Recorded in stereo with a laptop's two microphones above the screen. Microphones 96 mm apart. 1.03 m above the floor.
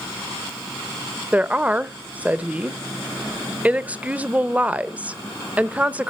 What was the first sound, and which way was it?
A woman speaking, 15° right (ahead or behind).